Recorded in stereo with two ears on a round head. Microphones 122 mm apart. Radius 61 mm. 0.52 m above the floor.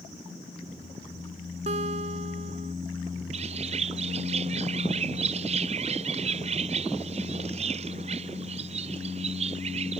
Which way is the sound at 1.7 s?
50° right (ahead or behind).